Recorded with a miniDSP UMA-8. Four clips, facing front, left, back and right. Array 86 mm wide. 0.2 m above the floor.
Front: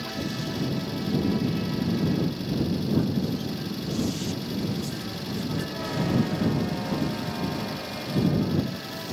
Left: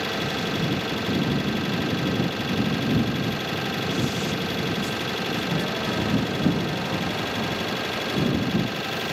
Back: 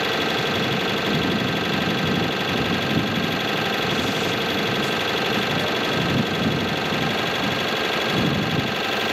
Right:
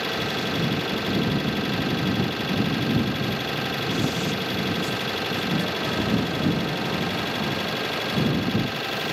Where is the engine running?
175° right.